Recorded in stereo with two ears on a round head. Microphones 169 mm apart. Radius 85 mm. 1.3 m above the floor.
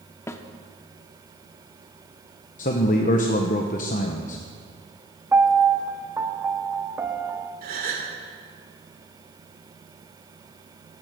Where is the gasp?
50° right (ahead or behind), 2.5 m.